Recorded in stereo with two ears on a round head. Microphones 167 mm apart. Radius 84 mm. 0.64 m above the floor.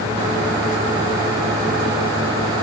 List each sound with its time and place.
Only background noise.